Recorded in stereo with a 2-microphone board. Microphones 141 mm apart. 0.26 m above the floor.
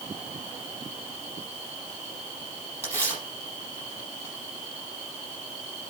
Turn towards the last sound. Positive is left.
turn(degrees=20)  # may be behind; listen again after turning